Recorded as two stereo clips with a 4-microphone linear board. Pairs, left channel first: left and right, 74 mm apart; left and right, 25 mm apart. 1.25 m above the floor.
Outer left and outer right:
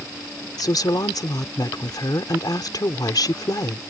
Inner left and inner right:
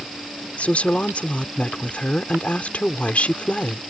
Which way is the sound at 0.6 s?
65° left (ahead or behind).